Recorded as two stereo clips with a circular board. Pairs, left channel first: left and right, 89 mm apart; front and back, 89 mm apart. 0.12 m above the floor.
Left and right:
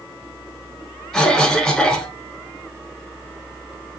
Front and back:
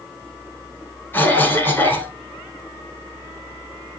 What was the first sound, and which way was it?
A cough, 20° left.